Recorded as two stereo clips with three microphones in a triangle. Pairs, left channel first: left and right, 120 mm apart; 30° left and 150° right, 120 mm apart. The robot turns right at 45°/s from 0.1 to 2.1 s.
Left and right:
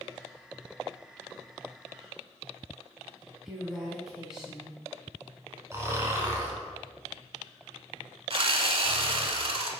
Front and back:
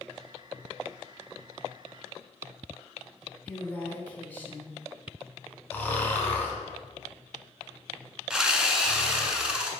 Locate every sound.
3.5 s a woman speaking: 15° right, 1.1 m
5.7 s snoring: 35° right, 1.0 m
8.3 s sawing: 65° right, 0.6 m